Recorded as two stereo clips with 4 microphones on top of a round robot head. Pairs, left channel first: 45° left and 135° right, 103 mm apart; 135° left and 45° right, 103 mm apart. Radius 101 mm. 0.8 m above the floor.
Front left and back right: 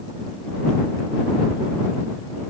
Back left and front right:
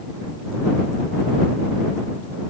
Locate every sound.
Only background noise.